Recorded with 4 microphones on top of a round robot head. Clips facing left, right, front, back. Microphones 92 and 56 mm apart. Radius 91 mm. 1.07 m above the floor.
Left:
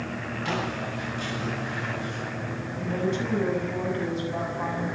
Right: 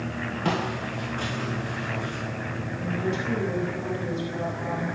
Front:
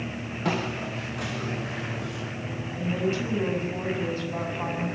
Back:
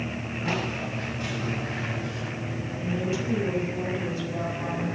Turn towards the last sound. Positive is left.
turn(degrees=35)